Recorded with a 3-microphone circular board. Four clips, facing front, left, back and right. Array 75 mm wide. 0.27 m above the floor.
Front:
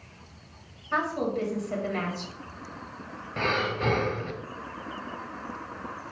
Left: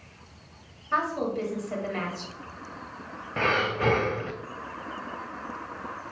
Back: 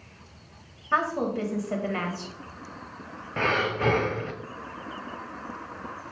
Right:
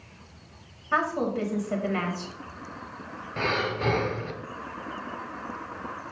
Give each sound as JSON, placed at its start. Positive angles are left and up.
{"t": 0.9, "sound": "a woman speaking", "azimuth_deg": -145, "distance_m": 1.0}
{"t": 3.4, "sound": "breathing", "azimuth_deg": 125, "distance_m": 0.5}